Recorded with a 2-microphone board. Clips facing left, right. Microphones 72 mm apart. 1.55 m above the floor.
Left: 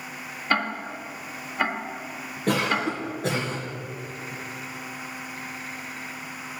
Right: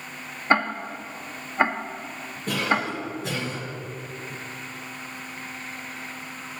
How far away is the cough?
About 1.7 m.